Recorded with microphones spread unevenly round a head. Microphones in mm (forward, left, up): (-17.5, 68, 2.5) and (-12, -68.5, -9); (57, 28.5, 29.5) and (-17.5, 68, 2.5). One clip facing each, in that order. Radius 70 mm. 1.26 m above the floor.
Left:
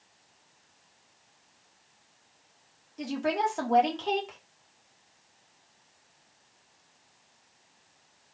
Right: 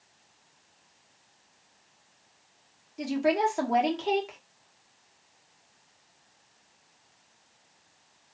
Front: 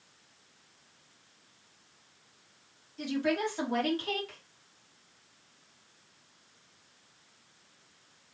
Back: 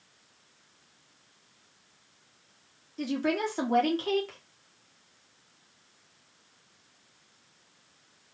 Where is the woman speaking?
170° right, 1.3 m.